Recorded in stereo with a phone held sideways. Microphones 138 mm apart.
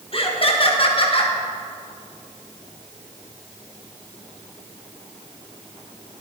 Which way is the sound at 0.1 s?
40° left (ahead or behind).